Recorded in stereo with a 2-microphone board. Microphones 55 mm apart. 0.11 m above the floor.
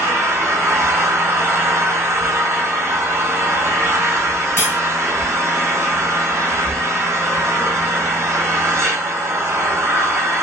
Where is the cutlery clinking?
45° left (ahead or behind), 1.1 m.